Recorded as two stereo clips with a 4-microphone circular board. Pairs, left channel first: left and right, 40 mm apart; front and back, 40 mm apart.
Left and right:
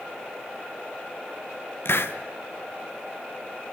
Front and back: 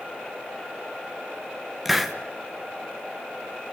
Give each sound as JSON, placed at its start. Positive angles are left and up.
{"t": 1.9, "sound": "a hiss", "azimuth_deg": 95, "distance_m": 1.3}